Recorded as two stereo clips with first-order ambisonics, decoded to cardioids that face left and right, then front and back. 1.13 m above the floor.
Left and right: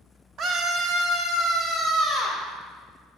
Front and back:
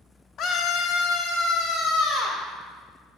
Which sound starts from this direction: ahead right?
A scream, at 0.4 s.